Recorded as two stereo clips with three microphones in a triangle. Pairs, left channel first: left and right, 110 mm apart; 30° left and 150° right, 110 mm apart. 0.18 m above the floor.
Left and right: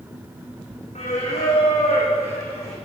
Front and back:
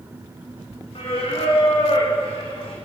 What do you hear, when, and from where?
0.9 s singing: 70° left, 4 m